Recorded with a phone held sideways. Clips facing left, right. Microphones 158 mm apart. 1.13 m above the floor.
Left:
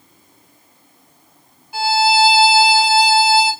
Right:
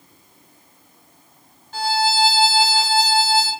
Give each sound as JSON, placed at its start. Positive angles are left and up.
{"t": 1.7, "sound": "a violin", "side_deg": 10, "distance_m": 2.5}